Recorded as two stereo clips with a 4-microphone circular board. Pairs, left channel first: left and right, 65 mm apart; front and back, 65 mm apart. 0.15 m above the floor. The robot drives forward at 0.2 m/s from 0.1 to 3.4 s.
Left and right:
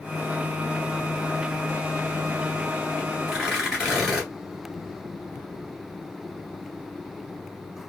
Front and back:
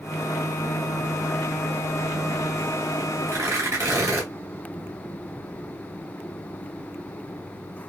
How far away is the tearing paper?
About 2 m.